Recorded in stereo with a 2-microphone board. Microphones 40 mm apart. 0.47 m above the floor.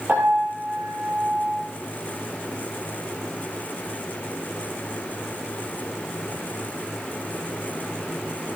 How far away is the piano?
About 8.5 m.